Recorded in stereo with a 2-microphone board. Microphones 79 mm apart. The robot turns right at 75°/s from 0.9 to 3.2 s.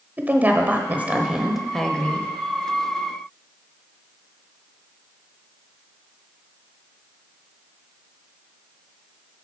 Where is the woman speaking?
20° right (ahead or behind), 1.0 m; by 2.3 s 20° left (ahead or behind), 1.0 m.